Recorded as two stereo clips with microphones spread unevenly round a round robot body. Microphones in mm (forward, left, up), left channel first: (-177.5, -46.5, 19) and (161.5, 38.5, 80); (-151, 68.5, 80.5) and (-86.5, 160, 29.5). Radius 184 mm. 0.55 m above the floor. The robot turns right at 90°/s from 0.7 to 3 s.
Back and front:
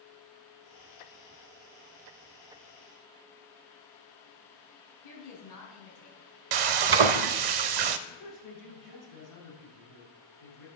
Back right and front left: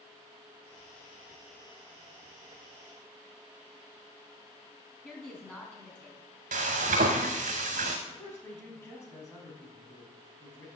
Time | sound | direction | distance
5.0 | a woman speaking | 155° left | 5.5 m
6.5 | frying | 10° left | 0.6 m
8.1 | a woman speaking | 165° left | 5 m